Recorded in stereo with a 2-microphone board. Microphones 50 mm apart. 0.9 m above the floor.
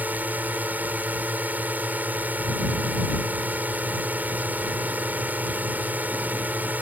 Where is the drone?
35° right (ahead or behind).